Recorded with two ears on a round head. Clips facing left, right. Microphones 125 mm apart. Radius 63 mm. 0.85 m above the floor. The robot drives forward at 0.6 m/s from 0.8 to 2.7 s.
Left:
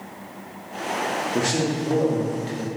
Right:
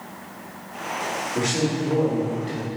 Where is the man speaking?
50° left (ahead or behind), 2 m; by 2.7 s 60° left (ahead or behind), 1.9 m.